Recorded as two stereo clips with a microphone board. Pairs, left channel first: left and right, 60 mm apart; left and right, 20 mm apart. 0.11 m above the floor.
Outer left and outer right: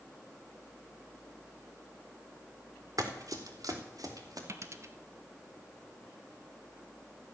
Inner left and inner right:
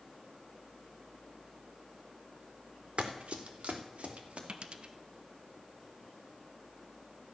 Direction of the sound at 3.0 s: 75° right (ahead or behind).